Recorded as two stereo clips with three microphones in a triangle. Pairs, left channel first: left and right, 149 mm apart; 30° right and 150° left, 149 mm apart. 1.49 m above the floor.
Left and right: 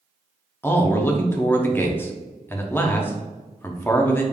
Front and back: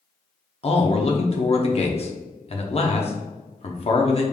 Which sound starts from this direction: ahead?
A man speaking, at 0.6 s.